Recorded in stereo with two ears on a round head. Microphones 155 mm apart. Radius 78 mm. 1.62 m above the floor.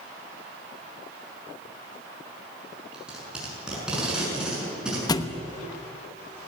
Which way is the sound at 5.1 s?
20° left (ahead or behind).